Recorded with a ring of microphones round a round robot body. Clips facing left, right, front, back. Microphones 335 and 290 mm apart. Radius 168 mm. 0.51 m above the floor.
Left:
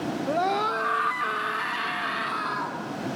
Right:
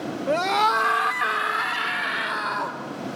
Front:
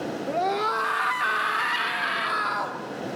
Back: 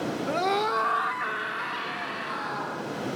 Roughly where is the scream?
Behind right.